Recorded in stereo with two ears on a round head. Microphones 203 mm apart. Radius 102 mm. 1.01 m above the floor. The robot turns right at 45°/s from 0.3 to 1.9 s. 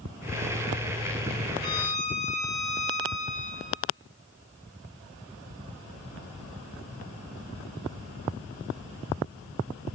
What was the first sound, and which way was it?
A violin, 50° left (ahead or behind).